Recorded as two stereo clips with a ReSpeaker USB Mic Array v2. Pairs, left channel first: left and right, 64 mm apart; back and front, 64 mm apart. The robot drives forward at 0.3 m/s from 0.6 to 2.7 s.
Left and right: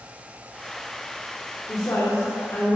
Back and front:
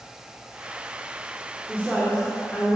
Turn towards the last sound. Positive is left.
turn(degrees=125)